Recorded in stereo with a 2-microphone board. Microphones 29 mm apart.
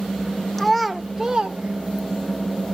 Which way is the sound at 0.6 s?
10° left (ahead or behind).